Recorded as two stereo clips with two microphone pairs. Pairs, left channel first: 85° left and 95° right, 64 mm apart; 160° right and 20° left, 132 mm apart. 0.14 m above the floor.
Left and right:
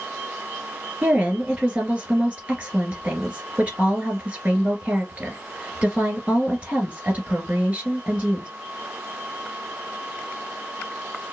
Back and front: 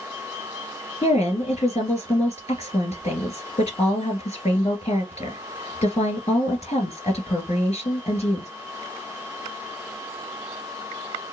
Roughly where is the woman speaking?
Behind.